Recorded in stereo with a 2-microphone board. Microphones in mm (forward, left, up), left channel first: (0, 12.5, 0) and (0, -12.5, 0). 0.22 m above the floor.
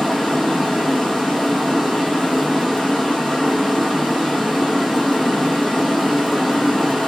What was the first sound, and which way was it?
Running water, centre (ahead or behind).